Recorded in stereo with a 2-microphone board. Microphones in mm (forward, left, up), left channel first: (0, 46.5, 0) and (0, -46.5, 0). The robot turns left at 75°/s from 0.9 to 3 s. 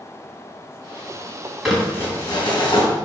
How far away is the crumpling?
About 3.5 m.